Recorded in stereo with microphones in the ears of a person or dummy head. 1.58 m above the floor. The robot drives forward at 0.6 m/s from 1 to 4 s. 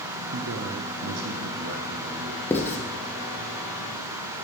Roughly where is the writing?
Centre.